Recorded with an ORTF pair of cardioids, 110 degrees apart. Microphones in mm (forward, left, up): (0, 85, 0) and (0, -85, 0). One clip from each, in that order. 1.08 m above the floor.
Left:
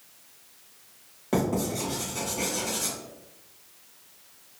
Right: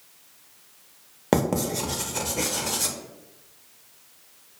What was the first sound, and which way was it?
Writing, 55° right.